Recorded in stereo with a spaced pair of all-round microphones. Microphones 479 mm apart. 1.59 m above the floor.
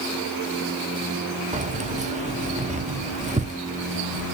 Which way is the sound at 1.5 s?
15° right (ahead or behind).